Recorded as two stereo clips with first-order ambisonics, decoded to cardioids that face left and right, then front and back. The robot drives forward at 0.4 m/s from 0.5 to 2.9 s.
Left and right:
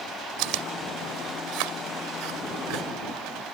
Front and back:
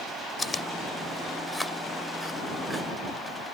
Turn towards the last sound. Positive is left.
turn(degrees=-95)